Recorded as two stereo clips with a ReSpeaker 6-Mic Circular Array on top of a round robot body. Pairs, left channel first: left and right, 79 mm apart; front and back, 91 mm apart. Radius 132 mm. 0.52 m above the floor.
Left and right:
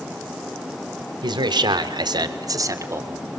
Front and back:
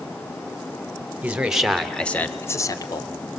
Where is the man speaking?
105° right, 2.5 m; by 3.1 s 35° right, 2 m.